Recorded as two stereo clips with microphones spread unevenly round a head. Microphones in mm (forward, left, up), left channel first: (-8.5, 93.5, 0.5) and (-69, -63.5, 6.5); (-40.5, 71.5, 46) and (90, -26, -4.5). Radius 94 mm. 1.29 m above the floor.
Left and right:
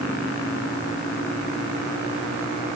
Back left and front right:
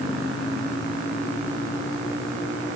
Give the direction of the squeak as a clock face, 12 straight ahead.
I don't hear a squeak.